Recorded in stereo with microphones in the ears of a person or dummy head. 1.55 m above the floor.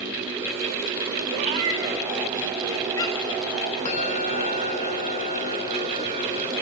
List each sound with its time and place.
1.3 s a cat meowing: 30° right (ahead or behind), 0.8 m; by 3.4 s 25° left (ahead or behind), 1.4 m
3.9 s a bell: 40° left (ahead or behind), 1.1 m